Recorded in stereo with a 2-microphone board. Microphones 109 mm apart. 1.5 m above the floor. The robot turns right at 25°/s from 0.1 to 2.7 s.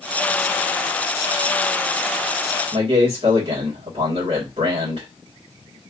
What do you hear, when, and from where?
2.7 s a man speaking: 65° right (ahead or behind), 1.9 m